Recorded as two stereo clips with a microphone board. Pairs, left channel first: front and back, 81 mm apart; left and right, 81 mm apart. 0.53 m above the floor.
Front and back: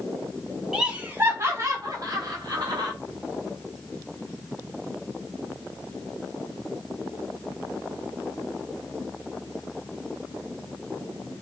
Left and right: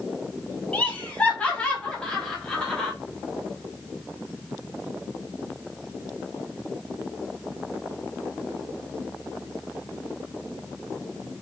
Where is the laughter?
110° left, 1.0 m; by 2.9 s 170° left, 1.9 m.